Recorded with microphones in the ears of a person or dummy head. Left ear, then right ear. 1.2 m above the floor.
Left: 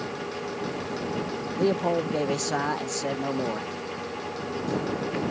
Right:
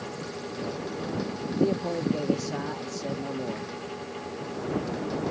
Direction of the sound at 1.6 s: 45° left (ahead or behind).